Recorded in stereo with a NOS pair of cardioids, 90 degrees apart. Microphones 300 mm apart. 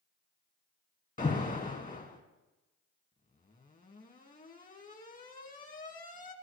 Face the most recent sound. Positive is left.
turn(degrees=25)